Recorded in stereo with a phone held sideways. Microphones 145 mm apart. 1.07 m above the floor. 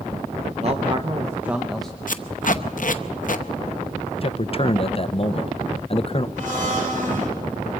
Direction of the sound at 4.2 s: 40° left (ahead or behind).